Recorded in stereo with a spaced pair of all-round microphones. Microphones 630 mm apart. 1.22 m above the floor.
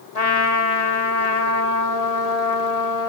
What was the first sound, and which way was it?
A trumpet, 75° left (ahead or behind).